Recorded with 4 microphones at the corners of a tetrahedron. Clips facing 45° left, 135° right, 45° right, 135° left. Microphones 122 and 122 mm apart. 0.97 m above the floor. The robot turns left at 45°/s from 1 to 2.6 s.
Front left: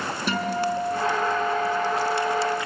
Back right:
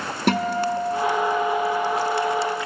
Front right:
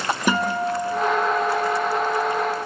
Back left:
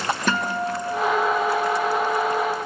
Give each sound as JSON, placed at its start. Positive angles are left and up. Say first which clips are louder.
{"t": 0.3, "sound": "a guitar", "louder": "back right 4 dB, front right 5 dB", "azimuth_deg": -120, "distance_m": 2.0}